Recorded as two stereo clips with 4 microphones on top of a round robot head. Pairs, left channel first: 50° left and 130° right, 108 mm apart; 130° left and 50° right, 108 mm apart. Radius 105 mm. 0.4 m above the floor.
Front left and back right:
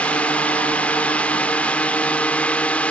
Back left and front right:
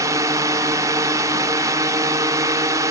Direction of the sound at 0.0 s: 20° right.